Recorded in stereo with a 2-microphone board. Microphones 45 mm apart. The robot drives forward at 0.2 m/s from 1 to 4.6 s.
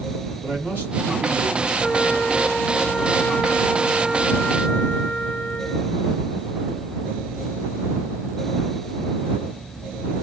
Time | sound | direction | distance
0.4 | a man speaking | 45° right (ahead or behind) | 2 m
1.8 | a flute | 15° left (ahead or behind) | 0.5 m